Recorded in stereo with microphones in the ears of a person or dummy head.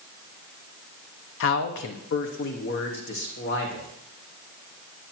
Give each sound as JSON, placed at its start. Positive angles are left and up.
{"t": 1.4, "sound": "a man speaking", "side_deg": 65, "distance_m": 0.7}